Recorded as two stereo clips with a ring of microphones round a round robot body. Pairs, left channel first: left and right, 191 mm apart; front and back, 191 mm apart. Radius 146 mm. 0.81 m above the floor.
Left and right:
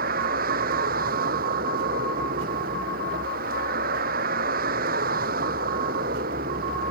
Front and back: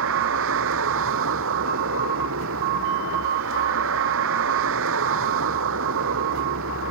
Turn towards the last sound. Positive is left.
turn(degrees=-150)